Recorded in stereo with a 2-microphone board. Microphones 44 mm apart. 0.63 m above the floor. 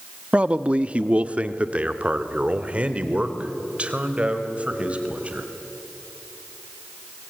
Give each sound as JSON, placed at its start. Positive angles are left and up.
{"t": 0.3, "sound": "a man speaking", "side_deg": -25, "distance_m": 0.7}